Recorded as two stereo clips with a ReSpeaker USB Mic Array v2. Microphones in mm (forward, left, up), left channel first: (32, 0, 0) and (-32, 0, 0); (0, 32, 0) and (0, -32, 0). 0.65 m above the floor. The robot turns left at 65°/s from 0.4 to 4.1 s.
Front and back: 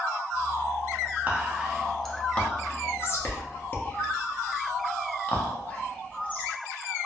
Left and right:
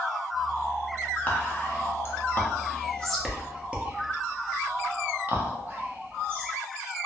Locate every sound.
1.3 s whispering: 130° left, 0.7 m; by 6.5 s 50° right, 0.7 m